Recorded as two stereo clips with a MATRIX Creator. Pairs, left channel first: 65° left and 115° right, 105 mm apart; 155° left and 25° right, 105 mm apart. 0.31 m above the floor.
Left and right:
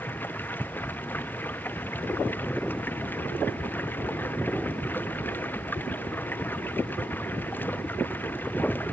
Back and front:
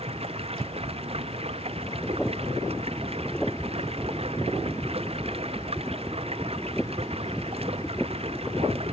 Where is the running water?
5° right.